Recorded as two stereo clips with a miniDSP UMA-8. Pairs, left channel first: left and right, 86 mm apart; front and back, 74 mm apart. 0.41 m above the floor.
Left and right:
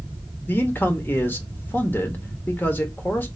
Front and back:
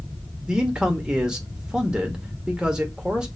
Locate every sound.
0.5 s a man speaking: 115° left, 0.8 m